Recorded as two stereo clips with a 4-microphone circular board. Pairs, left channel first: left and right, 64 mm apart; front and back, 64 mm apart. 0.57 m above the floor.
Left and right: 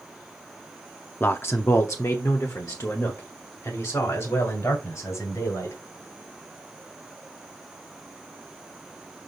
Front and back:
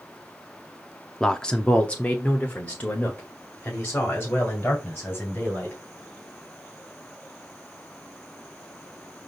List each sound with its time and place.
1.2 s a man speaking: 75° left, 0.6 m; by 5.8 s 60° left, 3.5 m